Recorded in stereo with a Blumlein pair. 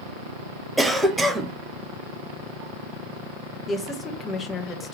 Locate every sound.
0.8 s a cough: 5° right, 0.6 m
3.7 s a woman speaking: 15° left, 0.8 m